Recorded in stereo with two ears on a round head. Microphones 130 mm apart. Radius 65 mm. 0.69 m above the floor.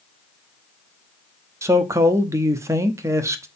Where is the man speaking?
20° right (ahead or behind), 0.9 m.